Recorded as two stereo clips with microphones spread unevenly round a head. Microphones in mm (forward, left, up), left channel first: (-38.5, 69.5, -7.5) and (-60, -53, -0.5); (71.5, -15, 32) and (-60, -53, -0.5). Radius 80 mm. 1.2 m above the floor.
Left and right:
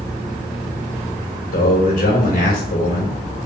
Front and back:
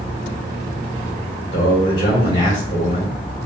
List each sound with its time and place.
1.5 s a man speaking: 80° left, 4 m